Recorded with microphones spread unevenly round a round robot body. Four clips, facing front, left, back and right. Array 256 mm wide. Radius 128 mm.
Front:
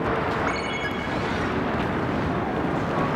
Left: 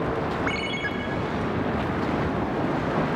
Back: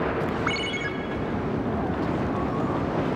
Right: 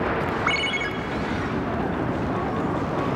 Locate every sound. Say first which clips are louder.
0.5 s a ringtone: right 2 dB, front 2 dB; 170° right, 1.3 m